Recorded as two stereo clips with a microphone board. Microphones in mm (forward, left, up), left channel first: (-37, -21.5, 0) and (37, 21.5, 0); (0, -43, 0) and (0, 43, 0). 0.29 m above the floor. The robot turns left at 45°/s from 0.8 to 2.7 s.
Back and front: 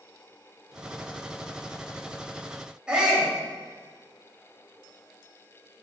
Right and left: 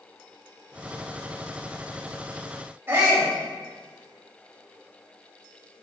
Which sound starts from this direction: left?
A shout, at 2.9 s.